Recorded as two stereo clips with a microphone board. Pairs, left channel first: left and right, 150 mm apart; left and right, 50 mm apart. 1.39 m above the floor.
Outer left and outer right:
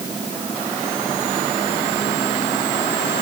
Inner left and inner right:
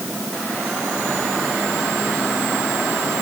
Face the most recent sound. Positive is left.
No sound to turn to.